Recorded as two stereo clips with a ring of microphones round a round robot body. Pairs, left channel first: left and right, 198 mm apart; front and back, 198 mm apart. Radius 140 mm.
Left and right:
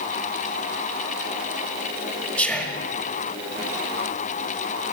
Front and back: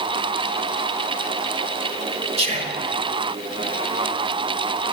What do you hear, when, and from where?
2.4 s whispering: 170° left, 1.2 m